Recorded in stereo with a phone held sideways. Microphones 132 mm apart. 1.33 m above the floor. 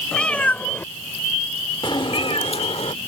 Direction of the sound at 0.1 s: 5° left (ahead or behind).